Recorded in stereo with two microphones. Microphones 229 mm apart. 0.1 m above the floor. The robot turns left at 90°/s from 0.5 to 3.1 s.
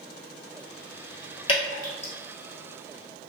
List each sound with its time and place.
1.5 s dripping: 25° left (ahead or behind), 1.1 m; by 2.1 s 55° left (ahead or behind), 1.1 m